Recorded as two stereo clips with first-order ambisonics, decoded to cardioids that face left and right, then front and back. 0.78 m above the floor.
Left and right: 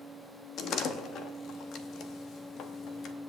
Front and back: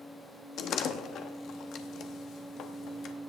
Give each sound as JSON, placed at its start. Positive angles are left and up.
{"t": 0.6, "sound": "a door slam", "azimuth_deg": 45, "distance_m": 1.0}